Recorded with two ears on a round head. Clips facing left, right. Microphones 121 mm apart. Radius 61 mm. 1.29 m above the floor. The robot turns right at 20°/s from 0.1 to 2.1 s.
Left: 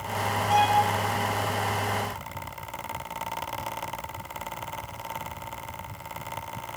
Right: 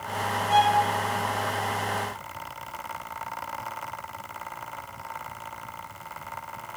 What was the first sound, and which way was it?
A violin, 40° left (ahead or behind).